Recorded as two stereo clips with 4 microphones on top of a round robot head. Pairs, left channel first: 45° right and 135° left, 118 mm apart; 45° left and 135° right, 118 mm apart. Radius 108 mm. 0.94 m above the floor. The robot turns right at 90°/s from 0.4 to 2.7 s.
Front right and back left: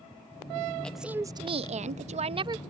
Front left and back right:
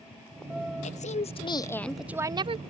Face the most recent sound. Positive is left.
turn(degrees=-160)